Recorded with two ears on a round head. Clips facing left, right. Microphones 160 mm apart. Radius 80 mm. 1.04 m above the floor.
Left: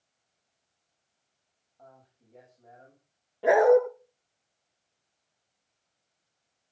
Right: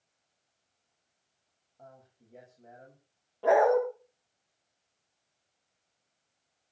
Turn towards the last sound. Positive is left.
turn(degrees=15)  # may be behind; listen again after turning